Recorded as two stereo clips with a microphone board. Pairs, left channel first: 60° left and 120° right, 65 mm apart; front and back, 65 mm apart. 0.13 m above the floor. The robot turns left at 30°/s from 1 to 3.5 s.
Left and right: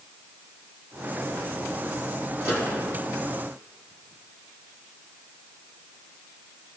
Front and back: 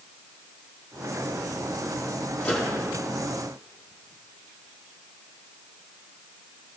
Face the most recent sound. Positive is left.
turn(degrees=-100)